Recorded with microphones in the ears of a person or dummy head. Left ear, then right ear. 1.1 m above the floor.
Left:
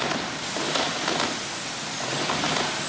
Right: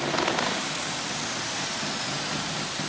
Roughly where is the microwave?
I don't hear a microwave.